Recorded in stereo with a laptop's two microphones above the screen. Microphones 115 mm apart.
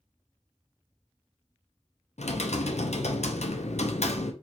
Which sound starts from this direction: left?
Typing on a keyboard, at 2.2 s.